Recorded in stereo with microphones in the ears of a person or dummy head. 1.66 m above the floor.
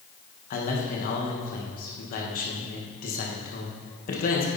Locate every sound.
0.5 s a man speaking: 50° left (ahead or behind), 2 m